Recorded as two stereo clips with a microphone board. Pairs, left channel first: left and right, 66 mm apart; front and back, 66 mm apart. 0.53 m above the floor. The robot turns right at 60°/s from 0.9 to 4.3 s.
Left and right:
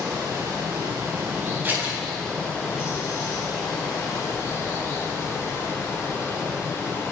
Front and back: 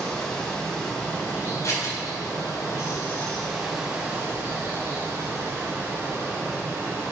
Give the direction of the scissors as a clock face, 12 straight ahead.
1 o'clock.